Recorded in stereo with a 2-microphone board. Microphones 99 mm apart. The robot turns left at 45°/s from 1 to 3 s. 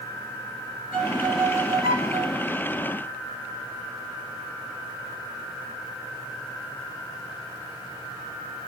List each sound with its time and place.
0.9 s a violin: 15° right, 2.5 m; by 2.5 s 80° right, 2.5 m